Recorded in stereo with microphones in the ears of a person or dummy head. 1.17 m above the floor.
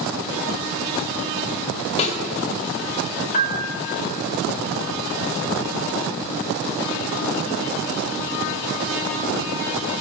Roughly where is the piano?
Left.